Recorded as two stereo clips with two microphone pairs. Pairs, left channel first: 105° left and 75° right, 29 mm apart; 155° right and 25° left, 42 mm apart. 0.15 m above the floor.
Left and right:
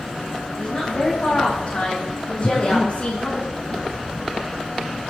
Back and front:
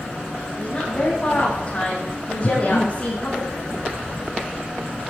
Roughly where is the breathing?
Behind right.